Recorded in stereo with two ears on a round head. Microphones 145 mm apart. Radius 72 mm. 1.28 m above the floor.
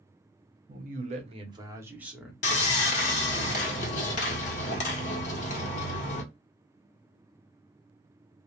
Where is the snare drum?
No snare drum in this recording.